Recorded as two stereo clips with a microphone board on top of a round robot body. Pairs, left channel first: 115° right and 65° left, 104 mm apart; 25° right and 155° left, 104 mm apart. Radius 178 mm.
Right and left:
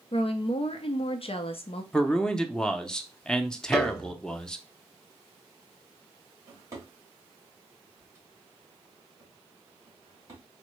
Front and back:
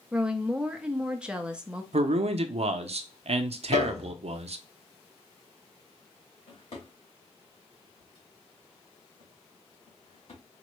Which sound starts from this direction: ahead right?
A piano, at 3.7 s.